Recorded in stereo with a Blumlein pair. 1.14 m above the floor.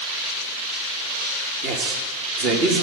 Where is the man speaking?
40° right, 1.6 m.